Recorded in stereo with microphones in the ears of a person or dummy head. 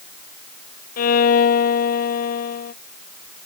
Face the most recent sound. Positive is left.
turn(degrees=40)  # may be behind; listen again after turning